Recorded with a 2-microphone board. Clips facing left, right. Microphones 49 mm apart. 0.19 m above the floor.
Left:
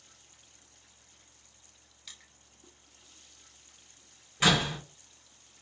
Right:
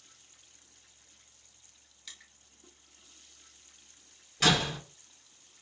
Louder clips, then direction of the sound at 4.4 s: Left 1 dB; 15° left (ahead or behind).